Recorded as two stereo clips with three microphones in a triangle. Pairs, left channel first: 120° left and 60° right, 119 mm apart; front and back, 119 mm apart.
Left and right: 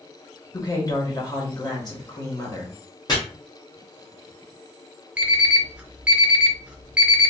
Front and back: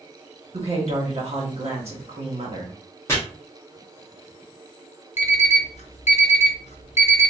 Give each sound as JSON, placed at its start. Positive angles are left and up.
{"t": 0.5, "sound": "a woman speaking", "azimuth_deg": 170, "distance_m": 1.4}
{"t": 3.1, "sound": "chopping", "azimuth_deg": 65, "distance_m": 1.4}
{"t": 5.2, "sound": "an alarm clock", "azimuth_deg": 20, "distance_m": 0.7}